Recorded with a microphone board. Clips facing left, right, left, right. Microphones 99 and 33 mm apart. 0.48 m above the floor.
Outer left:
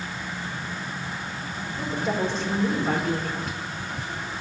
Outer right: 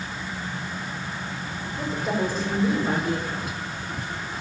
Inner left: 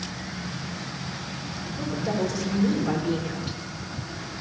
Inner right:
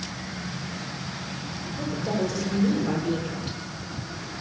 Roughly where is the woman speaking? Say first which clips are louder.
Even, even; centre.